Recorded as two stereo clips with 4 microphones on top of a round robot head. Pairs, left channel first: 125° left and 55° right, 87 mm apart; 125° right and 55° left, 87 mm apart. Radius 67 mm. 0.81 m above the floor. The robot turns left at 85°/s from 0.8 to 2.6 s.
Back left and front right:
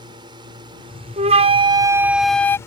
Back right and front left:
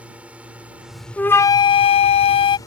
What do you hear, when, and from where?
0.0 s a drone: 20° right; by 2.7 s 175° right
1.2 s a flute: 45° right; by 2.6 s 165° right